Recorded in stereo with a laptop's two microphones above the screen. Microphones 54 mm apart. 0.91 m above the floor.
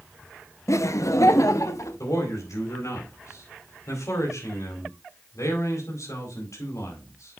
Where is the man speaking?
75° left (ahead or behind), 4 m.